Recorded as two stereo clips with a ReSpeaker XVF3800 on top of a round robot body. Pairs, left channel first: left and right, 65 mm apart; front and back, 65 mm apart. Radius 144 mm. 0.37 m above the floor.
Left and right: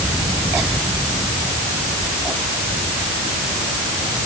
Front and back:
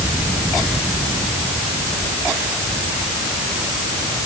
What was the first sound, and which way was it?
Only background noise.